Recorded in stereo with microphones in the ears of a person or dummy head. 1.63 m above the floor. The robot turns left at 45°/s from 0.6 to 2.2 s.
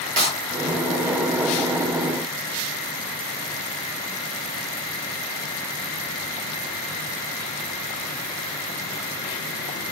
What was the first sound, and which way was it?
A clap, 45° right (ahead or behind).